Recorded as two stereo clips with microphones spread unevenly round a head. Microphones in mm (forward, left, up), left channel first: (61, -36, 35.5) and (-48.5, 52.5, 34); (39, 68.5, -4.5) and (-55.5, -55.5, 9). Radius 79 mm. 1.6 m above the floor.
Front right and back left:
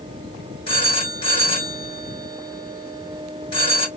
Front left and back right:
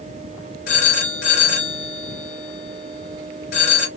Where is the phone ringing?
15° left, 2 m.